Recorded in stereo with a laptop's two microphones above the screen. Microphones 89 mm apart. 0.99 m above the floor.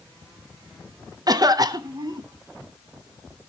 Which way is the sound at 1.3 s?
45° right (ahead or behind).